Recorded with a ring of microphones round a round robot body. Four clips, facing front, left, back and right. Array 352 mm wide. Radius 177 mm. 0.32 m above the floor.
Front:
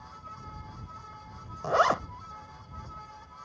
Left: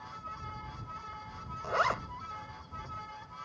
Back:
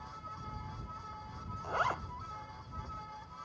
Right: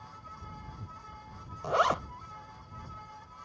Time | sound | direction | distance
1.6 | a zipper | 20° right | ?